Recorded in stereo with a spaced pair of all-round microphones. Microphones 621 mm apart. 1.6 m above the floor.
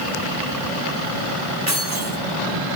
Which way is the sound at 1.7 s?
25° right (ahead or behind).